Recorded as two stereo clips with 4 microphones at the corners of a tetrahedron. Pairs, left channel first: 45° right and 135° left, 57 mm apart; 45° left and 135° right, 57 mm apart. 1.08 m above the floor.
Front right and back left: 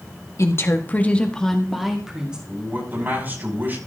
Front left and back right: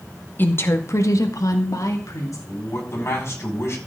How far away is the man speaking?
About 5 m.